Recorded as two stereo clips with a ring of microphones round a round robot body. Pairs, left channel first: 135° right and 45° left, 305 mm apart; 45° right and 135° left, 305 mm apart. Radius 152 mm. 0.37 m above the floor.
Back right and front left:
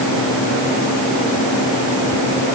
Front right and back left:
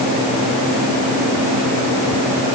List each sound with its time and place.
Only background noise.